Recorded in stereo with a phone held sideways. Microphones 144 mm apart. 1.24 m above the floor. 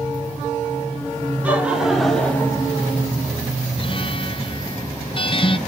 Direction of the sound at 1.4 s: 10° right (ahead or behind).